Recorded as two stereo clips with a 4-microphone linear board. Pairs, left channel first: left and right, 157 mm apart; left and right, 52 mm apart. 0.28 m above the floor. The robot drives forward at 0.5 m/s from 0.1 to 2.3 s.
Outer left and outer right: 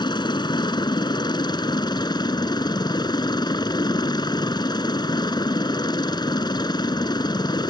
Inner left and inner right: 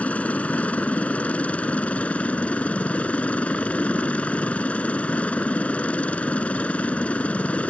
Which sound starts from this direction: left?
A helicopter, at 0.0 s.